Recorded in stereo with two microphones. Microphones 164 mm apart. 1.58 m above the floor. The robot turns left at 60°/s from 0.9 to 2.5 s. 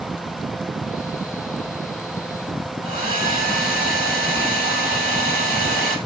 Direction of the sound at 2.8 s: 55° right (ahead or behind).